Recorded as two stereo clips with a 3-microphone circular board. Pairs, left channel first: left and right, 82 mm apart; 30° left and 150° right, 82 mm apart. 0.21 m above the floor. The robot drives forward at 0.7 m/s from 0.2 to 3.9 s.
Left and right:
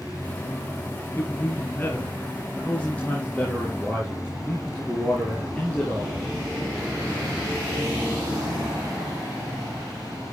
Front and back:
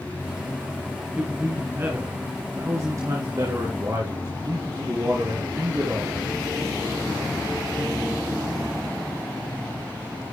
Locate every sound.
1.2 s a man speaking: 145° left, 1.5 m; by 6.3 s 165° left, 3 m